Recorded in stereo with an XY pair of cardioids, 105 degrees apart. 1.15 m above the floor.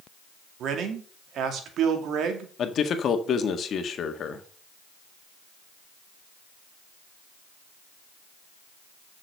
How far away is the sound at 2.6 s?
About 1.7 m.